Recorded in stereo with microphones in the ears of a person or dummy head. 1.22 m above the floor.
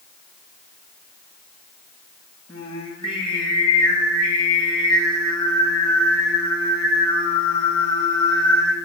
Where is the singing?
30° left (ahead or behind), 1.5 m.